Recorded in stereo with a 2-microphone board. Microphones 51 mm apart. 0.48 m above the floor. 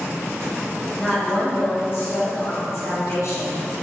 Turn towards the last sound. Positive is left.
turn(degrees=75)  # may be behind; listen again after turning